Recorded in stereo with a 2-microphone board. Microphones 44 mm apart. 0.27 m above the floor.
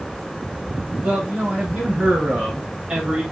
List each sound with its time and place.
1.0 s a man speaking: 30° right (ahead or behind), 1.6 m; by 3.2 s 15° right (ahead or behind), 1.0 m